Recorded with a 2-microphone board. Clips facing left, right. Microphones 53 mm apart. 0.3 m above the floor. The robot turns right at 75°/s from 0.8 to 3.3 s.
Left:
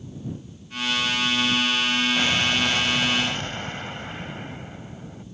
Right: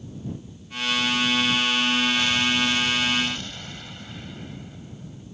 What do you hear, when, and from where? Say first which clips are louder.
2.2 s an explosion: even; 40° left; by 5.2 s 125° left